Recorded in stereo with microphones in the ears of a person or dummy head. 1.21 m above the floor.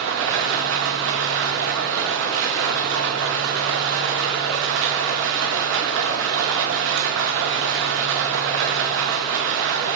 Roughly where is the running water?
Right.